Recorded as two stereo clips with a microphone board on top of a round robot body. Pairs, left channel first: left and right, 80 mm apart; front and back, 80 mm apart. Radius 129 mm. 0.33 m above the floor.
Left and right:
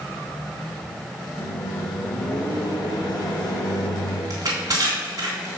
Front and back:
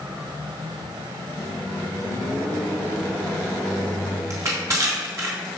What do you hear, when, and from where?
1.4 s a microwave: 75° left, 4.5 m
4.3 s crushing: 130° right, 3.5 m